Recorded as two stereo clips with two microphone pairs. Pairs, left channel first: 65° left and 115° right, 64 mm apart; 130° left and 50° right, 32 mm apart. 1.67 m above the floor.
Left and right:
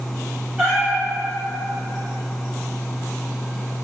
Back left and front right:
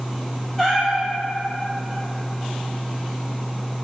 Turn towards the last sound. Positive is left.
turn(degrees=-170)